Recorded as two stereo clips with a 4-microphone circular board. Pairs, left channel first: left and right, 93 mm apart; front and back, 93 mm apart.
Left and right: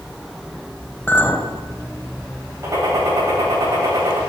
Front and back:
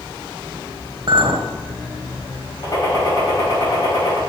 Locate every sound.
1.1 s a clink: 155° left, 1.1 m
2.6 s a gunshot: 40° right, 2.5 m